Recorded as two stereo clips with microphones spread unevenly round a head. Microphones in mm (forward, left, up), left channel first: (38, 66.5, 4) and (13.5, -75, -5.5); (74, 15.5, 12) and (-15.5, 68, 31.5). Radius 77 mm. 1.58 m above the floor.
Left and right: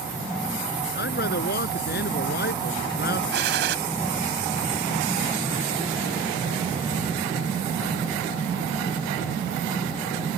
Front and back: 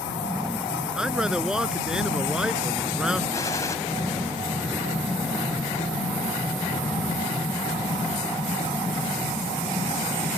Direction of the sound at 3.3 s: 105° right.